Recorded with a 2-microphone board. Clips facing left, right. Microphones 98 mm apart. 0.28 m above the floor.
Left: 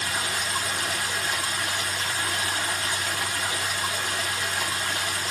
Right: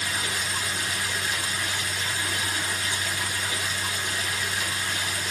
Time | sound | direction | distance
0.0 | running water | 55° left (ahead or behind) | 1.0 m